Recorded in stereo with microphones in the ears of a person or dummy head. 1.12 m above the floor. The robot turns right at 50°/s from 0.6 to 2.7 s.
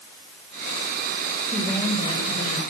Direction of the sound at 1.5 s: 5° right.